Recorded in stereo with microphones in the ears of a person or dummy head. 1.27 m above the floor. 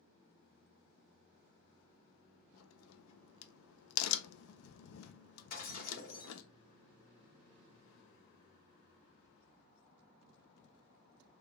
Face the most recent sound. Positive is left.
turn(degrees=40)  # may be behind; listen again after turning